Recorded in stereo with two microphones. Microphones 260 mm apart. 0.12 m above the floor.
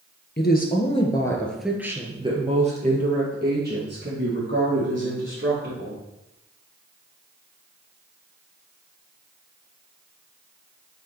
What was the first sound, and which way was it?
A woman speaking, 40° left (ahead or behind).